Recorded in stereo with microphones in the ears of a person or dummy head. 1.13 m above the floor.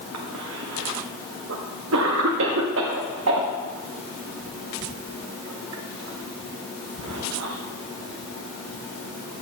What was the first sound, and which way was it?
A cough, 75° right (ahead or behind).